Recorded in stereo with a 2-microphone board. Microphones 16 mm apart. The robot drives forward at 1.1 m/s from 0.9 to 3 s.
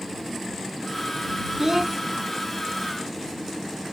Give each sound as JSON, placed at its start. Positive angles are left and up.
{"t": 1.6, "sound": "a child speaking", "side_deg": -35}